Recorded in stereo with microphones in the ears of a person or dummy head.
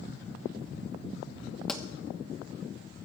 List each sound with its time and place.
1.7 s a pop: 5° left (ahead or behind), 1.1 m